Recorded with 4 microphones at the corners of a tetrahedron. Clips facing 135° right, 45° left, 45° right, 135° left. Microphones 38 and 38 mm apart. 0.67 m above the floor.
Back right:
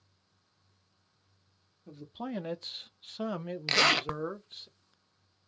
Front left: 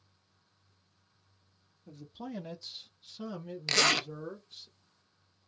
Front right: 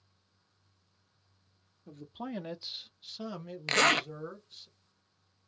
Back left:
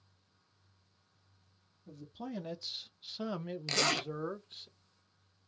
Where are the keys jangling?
No keys jangling in this recording.